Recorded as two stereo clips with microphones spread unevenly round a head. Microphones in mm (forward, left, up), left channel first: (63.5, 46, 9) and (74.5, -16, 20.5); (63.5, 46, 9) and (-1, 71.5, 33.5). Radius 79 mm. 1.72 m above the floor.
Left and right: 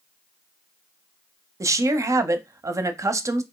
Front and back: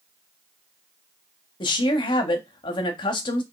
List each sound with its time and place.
1.6 s a woman speaking: 40° right, 0.5 m